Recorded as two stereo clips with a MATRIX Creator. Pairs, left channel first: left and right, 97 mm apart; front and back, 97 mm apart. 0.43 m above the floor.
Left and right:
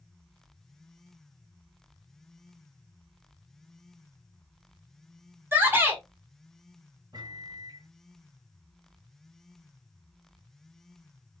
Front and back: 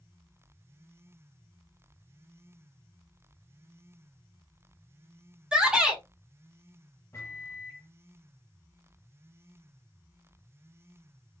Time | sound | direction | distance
5.5 | a shout | 115° right | 1.3 m
7.1 | a microwave | 55° right | 2 m